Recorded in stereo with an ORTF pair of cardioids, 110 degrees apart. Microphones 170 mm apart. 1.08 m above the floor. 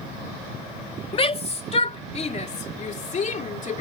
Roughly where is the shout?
Ahead left.